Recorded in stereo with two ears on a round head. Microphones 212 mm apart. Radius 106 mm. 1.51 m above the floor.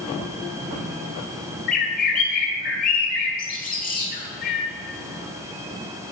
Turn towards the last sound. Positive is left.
turn(degrees=35)  # may be behind; listen again after turning